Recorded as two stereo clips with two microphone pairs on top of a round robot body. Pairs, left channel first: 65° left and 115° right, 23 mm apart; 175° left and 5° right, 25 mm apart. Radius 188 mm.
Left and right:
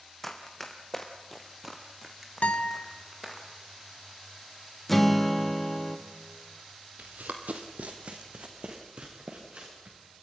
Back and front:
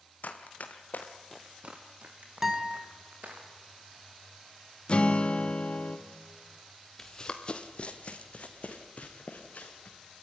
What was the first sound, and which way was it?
Running footsteps, 145° left.